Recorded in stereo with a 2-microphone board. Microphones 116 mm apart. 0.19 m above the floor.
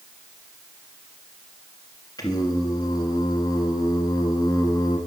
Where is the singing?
35° left (ahead or behind), 1.3 m.